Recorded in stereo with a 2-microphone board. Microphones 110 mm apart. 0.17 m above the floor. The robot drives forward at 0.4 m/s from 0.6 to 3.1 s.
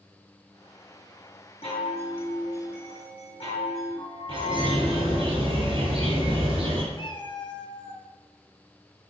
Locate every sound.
1.6 s a chime: 60° left (ahead or behind), 3 m
4.3 s a bird: 50° right (ahead or behind), 2 m
6.9 s a cat meowing: 50° left (ahead or behind), 0.7 m